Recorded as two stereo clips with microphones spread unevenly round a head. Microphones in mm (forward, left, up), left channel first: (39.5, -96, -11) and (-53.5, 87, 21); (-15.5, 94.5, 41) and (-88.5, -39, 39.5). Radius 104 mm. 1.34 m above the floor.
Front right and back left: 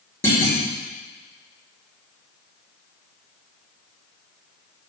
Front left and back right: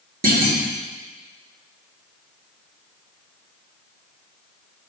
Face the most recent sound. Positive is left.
turn(degrees=-145)